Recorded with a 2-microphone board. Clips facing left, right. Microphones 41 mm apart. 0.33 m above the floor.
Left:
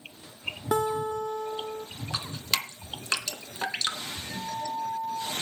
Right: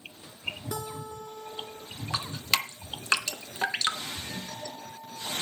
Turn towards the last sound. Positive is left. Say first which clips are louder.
# left 6 dB
turn(degrees=30)  # may be behind; listen again after turning